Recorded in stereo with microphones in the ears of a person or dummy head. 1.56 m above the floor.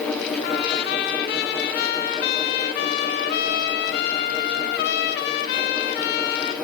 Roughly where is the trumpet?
Left.